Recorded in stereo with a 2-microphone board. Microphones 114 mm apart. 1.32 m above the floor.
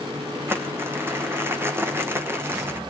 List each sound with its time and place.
0.5 s crumpling: 20° right (ahead or behind), 1.2 m